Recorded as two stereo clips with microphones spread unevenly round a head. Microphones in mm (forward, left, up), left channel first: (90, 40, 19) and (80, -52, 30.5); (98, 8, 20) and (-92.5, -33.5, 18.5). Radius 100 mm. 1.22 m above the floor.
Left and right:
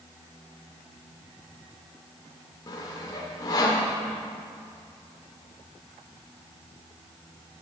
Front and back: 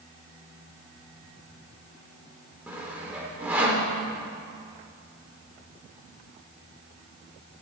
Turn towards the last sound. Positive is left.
turn(degrees=115)